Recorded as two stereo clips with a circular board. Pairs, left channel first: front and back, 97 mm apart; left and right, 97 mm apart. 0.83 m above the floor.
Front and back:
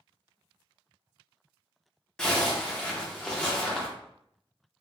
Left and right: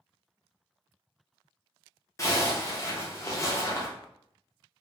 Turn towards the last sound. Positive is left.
turn(degrees=75)